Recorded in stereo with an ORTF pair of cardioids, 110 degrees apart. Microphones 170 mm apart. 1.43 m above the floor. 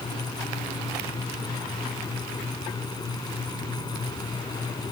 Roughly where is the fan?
Ahead left.